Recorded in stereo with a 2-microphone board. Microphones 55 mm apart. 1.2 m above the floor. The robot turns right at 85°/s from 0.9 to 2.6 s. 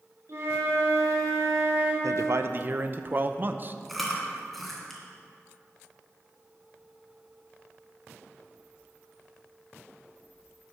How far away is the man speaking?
About 0.6 m.